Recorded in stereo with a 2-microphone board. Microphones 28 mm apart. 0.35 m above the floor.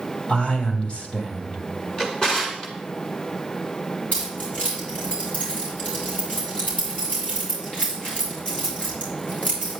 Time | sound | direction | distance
0.3 | a man speaking | 50° left (ahead or behind) | 2.5 m
2.0 | a drawer | 35° left (ahead or behind) | 2 m
4.1 | keys jangling | 50° left (ahead or behind) | 5 m